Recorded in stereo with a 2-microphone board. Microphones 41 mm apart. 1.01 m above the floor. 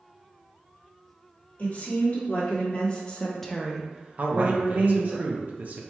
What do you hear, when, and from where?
1.6 s a woman speaking: 40° left (ahead or behind), 1.5 m; by 5.2 s 50° right (ahead or behind), 1.1 m
4.2 s a man speaking: 45° right (ahead or behind), 0.6 m